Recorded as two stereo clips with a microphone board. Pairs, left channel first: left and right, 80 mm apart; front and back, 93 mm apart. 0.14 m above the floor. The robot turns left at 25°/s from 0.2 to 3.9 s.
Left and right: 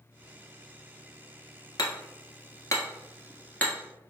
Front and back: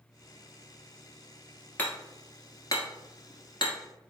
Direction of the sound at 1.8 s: 70° left.